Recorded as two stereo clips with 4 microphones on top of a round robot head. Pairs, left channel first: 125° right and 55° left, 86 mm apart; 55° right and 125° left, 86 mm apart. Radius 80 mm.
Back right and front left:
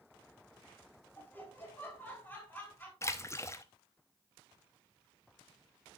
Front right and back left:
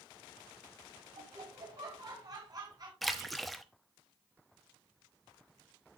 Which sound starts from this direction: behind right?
A splash, at 3.0 s.